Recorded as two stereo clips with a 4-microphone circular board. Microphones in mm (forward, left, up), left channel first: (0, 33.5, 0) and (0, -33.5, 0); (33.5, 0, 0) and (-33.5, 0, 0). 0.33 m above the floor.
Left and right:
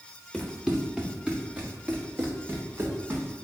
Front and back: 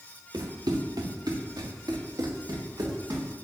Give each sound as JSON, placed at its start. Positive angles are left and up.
{"t": 0.3, "sound": "running footsteps", "azimuth_deg": 180, "distance_m": 2.0}